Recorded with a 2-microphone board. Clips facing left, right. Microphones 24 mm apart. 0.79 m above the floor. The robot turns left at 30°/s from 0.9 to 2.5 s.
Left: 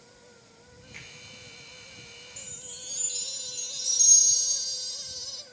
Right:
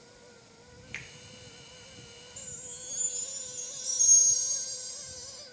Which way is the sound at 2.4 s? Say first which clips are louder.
Left 4 dB; 60° left (ahead or behind).